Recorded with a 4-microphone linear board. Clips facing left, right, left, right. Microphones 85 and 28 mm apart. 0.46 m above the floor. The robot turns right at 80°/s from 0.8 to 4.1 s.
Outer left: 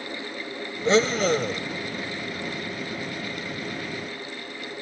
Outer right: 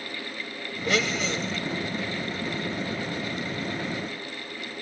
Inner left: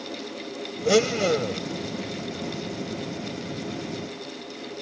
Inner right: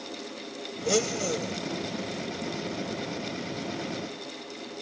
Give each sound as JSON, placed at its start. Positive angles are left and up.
{"t": 0.8, "sound": "a blender", "azimuth_deg": 30}